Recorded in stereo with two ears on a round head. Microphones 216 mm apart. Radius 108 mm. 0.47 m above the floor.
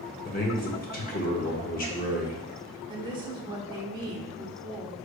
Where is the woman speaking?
20° right (ahead or behind), 0.9 m.